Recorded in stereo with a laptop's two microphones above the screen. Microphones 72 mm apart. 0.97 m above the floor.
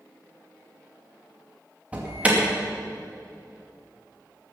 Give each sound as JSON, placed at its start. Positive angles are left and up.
{"t": 1.9, "sound": "an alarm", "side_deg": -15, "distance_m": 2.0}